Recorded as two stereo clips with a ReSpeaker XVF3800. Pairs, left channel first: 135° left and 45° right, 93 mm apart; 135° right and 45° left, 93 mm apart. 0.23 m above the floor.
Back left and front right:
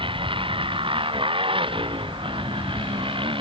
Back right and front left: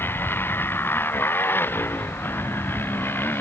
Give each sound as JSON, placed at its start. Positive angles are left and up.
{"t": 0.0, "sound": "a motorcycle", "azimuth_deg": -70}